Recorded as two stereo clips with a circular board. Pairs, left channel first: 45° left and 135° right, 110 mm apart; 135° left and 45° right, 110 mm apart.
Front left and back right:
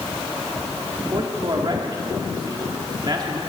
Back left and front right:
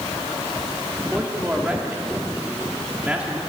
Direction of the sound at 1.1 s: 120° right.